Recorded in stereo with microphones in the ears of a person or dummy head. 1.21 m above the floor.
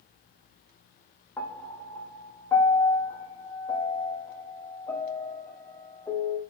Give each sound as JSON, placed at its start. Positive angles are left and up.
{"t": 1.4, "sound": "a piano", "side_deg": 15, "distance_m": 0.6}